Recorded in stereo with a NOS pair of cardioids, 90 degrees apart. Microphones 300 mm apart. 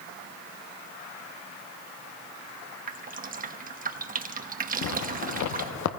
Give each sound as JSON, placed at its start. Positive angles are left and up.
{"t": 2.9, "sound": "dripping", "azimuth_deg": -30, "distance_m": 1.0}
{"t": 4.8, "sound": "a zipper", "azimuth_deg": 70, "distance_m": 0.8}